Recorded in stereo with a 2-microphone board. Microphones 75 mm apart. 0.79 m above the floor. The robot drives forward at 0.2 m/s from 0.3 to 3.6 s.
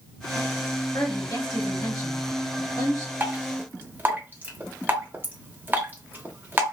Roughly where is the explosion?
I don't hear an explosion.